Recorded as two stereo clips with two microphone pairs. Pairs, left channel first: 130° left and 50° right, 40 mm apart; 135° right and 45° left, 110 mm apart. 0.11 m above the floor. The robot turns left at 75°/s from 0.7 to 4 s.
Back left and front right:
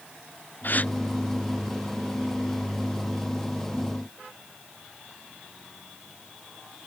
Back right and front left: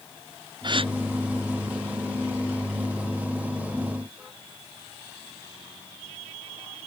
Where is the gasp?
90° left; by 0.9 s 70° left.